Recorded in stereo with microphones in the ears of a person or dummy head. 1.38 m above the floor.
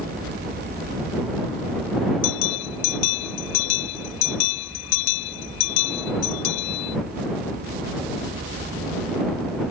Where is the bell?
65° left (ahead or behind).